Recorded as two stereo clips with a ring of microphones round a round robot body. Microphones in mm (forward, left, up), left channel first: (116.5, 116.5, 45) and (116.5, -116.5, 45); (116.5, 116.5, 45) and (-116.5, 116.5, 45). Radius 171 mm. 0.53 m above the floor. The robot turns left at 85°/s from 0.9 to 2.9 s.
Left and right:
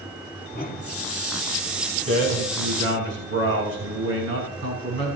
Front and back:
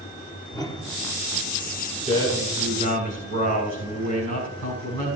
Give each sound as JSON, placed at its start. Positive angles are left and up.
{"t": 0.5, "sound": "a whoosh", "azimuth_deg": 65, "distance_m": 1.6}
{"t": 2.1, "sound": "a man speaking", "azimuth_deg": -65, "distance_m": 6.0}